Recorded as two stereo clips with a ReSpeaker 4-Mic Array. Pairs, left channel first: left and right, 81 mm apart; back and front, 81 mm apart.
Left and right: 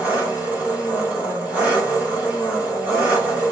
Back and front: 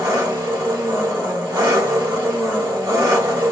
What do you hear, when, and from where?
0.0 s an engine running: 20° right, 1.2 m